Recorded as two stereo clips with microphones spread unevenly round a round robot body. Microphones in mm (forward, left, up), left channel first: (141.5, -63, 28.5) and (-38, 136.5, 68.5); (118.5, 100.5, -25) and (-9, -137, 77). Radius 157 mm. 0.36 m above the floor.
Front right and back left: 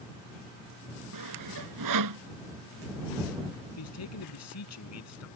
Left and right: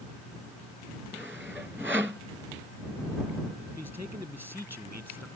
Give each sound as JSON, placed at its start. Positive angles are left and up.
{"t": 1.1, "sound": "sawing", "azimuth_deg": 155}
{"t": 3.8, "sound": "a man speaking", "azimuth_deg": -30}